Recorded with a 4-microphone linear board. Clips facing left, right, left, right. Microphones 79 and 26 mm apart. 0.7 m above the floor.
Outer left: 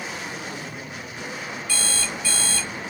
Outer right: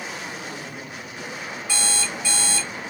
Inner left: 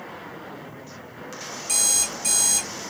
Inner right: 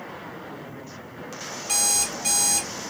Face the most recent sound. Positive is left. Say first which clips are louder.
# outer right 2 dB, inner left 1 dB
turn(degrees=-20)  # may be behind; listen again after turning